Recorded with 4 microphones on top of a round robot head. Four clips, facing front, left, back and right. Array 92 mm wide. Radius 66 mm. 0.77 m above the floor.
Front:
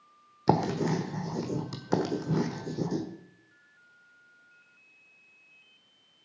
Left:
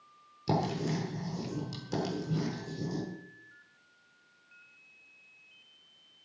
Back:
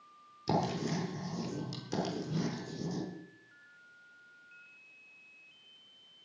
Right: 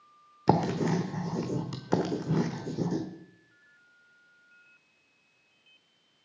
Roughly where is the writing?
Ahead right.